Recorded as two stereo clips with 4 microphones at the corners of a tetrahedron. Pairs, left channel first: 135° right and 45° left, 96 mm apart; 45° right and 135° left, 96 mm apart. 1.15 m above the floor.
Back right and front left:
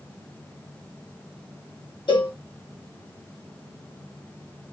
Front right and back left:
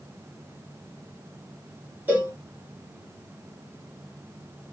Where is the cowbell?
155° right, 1.5 m.